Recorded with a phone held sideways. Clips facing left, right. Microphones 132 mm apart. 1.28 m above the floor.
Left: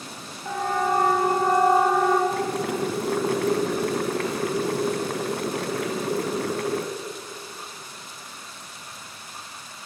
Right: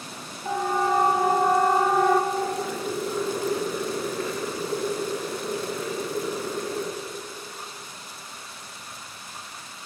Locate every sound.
0.5 s a siren: 15° right (ahead or behind), 6 m; by 2.2 s 5° left (ahead or behind), 5 m
2.3 s boiling: 70° left (ahead or behind), 3 m